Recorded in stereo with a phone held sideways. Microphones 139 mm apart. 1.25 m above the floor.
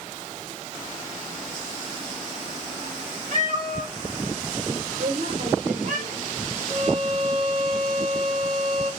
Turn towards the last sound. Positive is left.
turn(degrees=-70)  # may be behind; listen again after turning